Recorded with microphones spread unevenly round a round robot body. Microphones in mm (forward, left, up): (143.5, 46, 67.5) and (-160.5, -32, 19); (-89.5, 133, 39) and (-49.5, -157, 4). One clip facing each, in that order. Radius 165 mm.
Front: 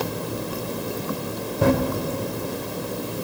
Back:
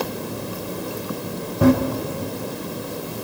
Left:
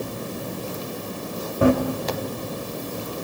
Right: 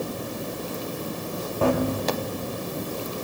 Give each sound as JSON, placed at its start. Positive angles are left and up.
{"t": 1.6, "sound": "running footsteps", "azimuth_deg": 170, "distance_m": 2.5}